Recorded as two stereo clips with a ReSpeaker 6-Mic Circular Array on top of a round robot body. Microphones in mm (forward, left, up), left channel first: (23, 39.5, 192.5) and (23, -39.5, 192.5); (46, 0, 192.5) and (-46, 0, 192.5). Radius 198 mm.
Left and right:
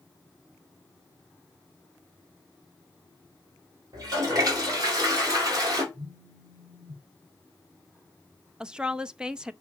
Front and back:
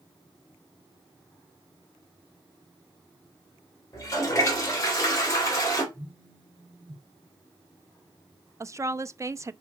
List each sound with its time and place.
3.9 s a toilet flushing: 55° right, 3.5 m
5.9 s a phone buzzing: 60° right, 4.5 m
8.6 s a woman speaking: 160° right, 0.7 m